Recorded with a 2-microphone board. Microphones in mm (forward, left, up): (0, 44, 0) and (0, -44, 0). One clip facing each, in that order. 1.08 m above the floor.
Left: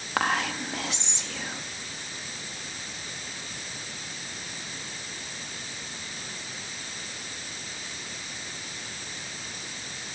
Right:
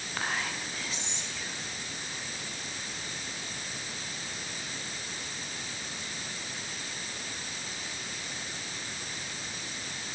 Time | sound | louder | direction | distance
0.2 | whispering | left 8 dB | 70° left (ahead or behind) | 1.3 m